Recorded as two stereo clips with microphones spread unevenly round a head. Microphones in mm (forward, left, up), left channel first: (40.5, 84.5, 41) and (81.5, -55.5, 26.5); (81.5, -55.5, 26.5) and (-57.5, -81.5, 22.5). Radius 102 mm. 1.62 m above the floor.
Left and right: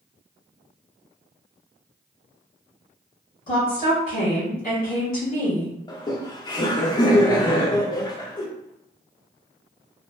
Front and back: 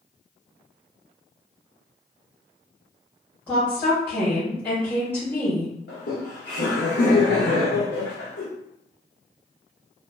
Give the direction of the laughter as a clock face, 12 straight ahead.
11 o'clock.